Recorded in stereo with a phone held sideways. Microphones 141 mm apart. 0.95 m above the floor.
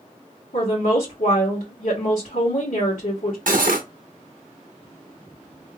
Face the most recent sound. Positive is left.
turn(degrees=-75)  # may be behind; listen again after turning